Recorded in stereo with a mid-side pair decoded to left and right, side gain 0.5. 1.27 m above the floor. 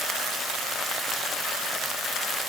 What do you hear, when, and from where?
Only background noise.